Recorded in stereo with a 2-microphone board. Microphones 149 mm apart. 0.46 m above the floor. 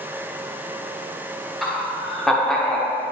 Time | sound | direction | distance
1.6 | laughter | centre (ahead or behind) | 1.3 m